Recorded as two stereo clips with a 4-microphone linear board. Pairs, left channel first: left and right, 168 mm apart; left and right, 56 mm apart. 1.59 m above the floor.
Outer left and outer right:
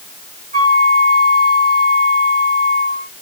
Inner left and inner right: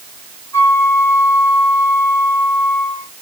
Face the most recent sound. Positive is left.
turn(degrees=70)  # may be behind; listen again after turning